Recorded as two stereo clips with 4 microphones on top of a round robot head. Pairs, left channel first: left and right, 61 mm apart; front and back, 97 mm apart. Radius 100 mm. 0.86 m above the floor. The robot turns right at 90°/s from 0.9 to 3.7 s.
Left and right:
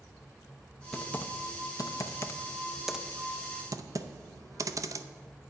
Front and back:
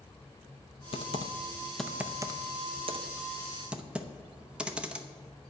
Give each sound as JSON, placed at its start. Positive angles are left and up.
{"t": 0.9, "sound": "typing on a keyboard", "azimuth_deg": 5, "distance_m": 0.7}